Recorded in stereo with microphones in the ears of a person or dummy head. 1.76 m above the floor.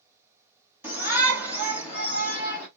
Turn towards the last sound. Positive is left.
turn(degrees=-10)  # may be behind; listen again after turning